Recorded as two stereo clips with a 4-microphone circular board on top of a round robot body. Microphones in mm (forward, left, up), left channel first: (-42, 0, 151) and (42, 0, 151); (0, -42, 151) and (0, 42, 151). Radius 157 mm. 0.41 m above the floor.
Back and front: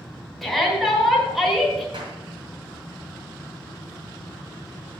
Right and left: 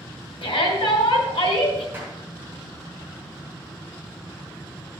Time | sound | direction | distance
0.4 | a shout | 90° right | 3.5 m
1.9 | a clap | 20° left | 4 m